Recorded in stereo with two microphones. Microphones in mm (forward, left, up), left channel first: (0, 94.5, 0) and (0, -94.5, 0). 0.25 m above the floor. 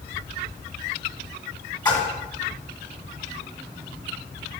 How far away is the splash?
About 1.6 m.